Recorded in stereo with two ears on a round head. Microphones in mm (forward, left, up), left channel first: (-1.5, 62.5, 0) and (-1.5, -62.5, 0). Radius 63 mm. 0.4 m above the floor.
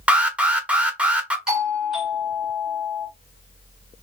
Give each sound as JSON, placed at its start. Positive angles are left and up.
{"t": 0.1, "sound": "an alarm", "side_deg": -10, "distance_m": 0.6}
{"t": 1.5, "sound": "a doorbell", "side_deg": -5, "distance_m": 2.0}